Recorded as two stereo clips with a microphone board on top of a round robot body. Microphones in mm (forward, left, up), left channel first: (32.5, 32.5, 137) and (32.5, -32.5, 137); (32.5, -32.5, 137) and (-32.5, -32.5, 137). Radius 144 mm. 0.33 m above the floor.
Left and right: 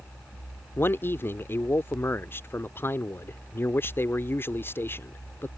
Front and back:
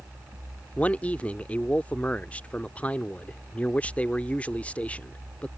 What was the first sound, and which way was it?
A man speaking, 60° left.